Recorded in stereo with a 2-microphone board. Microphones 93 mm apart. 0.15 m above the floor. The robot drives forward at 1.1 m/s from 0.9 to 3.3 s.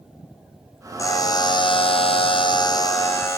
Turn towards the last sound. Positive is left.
turn(degrees=30)  # may be behind; listen again after turning